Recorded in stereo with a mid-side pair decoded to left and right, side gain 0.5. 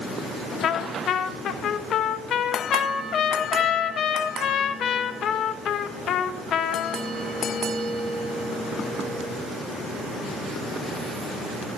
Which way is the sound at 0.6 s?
60° left.